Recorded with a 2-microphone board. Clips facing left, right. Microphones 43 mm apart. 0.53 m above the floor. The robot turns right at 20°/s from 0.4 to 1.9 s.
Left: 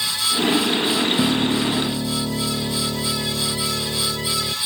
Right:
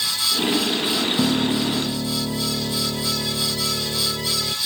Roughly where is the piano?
Centre.